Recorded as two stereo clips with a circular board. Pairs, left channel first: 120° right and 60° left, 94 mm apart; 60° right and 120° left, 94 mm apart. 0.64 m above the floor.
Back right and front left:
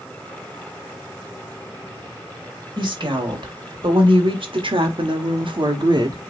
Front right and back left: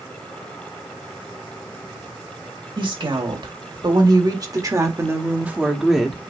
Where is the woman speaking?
90° left, 2.5 m; by 6.2 s 25° left, 1.2 m.